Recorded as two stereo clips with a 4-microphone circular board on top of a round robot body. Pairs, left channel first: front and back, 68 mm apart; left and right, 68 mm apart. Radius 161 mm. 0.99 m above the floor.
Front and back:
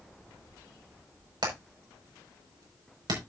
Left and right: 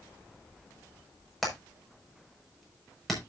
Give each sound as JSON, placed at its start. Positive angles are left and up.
{"t": 1.4, "sound": "hammering", "azimuth_deg": 180, "distance_m": 5.5}